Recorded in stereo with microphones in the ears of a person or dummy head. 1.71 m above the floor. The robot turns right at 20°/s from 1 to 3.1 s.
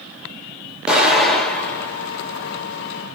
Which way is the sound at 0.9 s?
5° right (ahead or behind).